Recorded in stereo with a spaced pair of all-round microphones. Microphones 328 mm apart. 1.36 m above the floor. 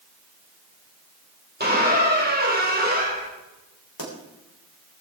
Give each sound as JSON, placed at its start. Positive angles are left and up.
{"t": 1.6, "sound": "a squeak", "side_deg": -30, "distance_m": 3.0}
{"t": 4.0, "sound": "a pop", "side_deg": 80, "distance_m": 3.5}